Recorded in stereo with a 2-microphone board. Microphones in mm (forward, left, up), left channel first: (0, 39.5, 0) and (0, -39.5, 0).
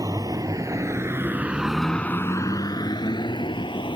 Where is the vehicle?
50° right (ahead or behind); by 4.0 s 80° left.